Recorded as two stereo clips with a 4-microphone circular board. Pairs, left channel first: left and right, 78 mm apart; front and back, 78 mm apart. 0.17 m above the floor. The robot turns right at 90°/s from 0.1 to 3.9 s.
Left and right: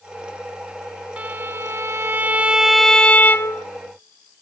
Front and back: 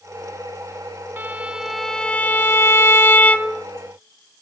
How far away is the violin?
About 0.6 m.